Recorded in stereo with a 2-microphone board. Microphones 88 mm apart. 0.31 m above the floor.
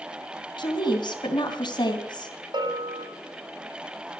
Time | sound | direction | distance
0.6 | a woman speaking | 60° left (ahead or behind) | 2.5 m
2.5 | a bell | 55° right (ahead or behind) | 1.7 m